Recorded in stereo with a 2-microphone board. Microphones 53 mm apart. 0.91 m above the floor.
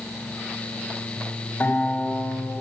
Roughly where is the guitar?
Left.